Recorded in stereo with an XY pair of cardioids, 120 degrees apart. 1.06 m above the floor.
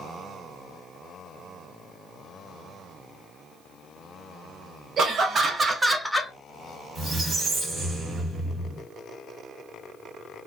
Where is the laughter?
45° right, 1.0 m; by 6.3 s 20° left, 0.5 m.